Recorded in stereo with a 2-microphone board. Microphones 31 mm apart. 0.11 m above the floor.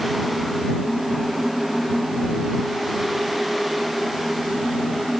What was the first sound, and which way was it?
Only background noise.